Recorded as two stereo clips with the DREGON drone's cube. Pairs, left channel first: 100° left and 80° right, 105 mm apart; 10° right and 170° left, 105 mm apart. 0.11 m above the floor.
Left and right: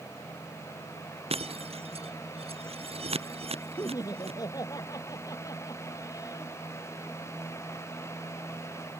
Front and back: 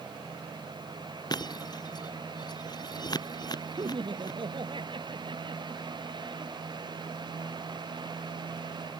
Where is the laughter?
145° left.